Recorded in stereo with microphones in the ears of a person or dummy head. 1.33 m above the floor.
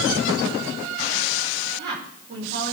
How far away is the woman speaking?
About 5 m.